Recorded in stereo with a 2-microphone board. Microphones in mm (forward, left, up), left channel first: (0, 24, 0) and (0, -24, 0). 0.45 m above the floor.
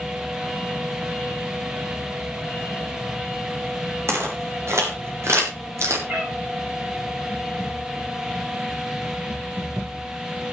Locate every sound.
4.1 s footsteps: 70° right (ahead or behind), 7 m; by 6.0 s 75° right (ahead or behind), 6 m
6.1 s a cat meowing: 50° right (ahead or behind), 9.5 m